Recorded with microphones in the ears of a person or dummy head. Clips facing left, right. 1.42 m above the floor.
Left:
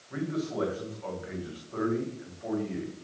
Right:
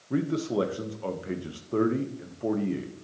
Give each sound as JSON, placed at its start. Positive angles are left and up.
{"t": 0.1, "sound": "a man speaking", "side_deg": -45, "distance_m": 1.2}